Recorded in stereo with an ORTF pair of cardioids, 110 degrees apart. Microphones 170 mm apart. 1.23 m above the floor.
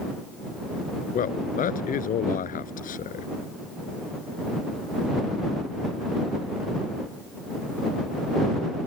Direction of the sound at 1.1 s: 55° left.